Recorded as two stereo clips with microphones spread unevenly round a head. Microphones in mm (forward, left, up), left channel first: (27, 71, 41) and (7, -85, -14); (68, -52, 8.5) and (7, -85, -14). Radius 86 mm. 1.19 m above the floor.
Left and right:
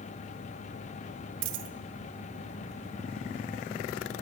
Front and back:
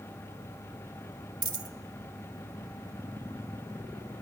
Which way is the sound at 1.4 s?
125° right.